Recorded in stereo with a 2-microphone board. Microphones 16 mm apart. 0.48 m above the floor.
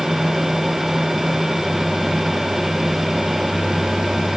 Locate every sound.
Only background noise.